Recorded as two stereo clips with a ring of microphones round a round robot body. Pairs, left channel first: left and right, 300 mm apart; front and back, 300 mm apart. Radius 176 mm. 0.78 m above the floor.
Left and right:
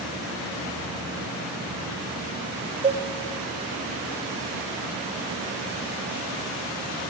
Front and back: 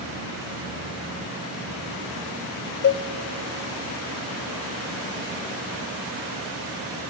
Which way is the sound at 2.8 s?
30° right.